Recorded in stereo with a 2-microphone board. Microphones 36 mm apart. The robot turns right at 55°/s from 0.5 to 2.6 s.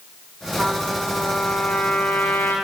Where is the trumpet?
30° right, 9.5 m; by 2.5 s 75° left, 9.5 m.